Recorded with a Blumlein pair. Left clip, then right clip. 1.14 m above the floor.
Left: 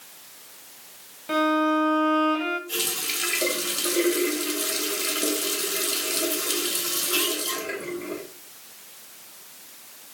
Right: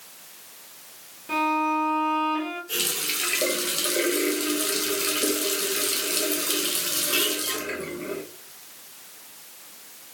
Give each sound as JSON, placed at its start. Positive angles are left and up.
{"t": 1.3, "sound": "a violin", "azimuth_deg": 15, "distance_m": 1.3}
{"t": 2.7, "sound": "a running tap", "azimuth_deg": -5, "distance_m": 0.9}